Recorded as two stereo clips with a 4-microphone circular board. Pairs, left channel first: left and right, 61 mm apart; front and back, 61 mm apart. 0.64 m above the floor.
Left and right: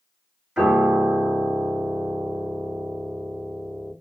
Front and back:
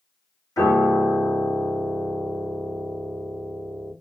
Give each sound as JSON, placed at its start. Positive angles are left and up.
{"t": 0.6, "sound": "a piano", "azimuth_deg": -15, "distance_m": 1.6}